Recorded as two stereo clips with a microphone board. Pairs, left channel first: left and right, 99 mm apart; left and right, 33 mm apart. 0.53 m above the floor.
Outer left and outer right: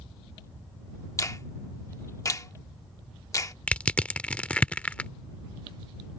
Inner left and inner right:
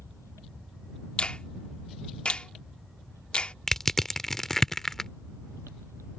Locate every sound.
1.2 s a finger snap: 35° left (ahead or behind)
3.7 s crushing: 15° left (ahead or behind)